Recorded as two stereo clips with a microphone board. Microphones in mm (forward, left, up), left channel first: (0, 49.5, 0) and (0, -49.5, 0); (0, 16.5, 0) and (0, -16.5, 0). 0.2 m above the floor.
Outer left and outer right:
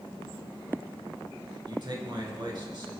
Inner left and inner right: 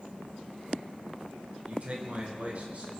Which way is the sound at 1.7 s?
50° right (ahead or behind).